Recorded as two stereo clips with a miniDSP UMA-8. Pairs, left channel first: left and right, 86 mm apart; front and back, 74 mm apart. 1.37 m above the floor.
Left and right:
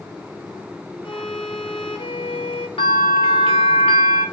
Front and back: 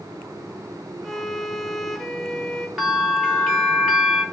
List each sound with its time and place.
1.0 s a violin: 85° left, 1.0 m
2.8 s a bell: 100° left, 3 m